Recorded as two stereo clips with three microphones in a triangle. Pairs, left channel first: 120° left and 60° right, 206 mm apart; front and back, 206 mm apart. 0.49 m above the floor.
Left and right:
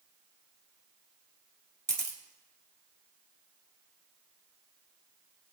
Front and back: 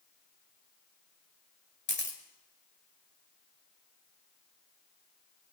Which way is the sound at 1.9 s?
10° right.